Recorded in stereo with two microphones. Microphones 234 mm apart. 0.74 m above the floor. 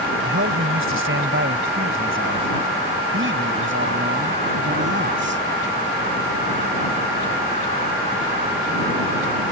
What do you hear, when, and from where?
0.2 s a man speaking: 70° right (ahead or behind); by 5.4 s 55° right (ahead or behind)